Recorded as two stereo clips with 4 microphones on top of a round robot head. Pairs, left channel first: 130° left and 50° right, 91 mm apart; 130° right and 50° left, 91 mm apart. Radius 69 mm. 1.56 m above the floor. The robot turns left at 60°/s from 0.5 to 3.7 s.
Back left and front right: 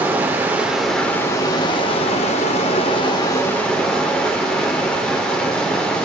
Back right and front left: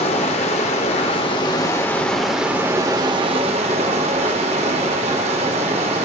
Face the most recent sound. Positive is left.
turn(degrees=50)